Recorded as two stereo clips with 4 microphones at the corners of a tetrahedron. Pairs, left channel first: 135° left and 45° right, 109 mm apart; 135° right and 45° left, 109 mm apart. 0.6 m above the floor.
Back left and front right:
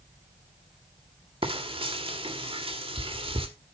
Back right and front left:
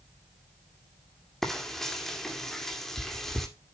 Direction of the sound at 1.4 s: 50° right.